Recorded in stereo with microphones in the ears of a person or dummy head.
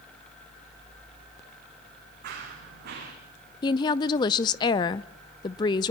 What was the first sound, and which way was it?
Running footsteps, 55° right (ahead or behind).